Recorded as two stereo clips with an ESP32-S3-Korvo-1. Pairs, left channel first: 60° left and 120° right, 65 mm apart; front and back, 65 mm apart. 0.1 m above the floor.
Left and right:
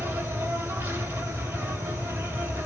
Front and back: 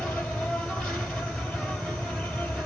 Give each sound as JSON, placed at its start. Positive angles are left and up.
{"t": 0.0, "sound": "an insect", "azimuth_deg": -70, "distance_m": 3.5}